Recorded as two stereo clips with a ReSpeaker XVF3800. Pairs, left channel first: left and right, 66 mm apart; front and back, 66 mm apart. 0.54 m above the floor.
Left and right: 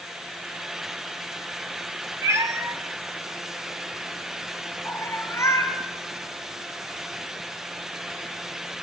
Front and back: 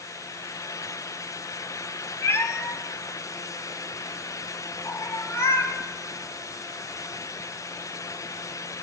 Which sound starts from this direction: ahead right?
A cat meowing, at 2.2 s.